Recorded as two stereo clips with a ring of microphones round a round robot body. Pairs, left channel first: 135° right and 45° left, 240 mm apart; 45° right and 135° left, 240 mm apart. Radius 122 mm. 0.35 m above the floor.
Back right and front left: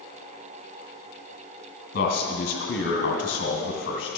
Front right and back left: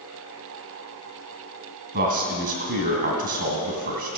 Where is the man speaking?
175° left, 2 m.